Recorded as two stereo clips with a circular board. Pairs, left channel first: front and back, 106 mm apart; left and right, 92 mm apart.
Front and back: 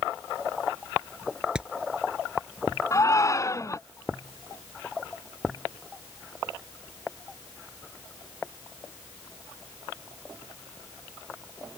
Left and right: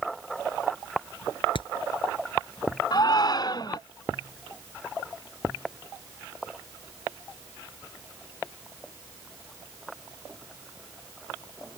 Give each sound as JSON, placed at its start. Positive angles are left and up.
{"t": 1.6, "sound": "hammering", "azimuth_deg": 100}
{"t": 2.9, "sound": "a shout", "azimuth_deg": 55}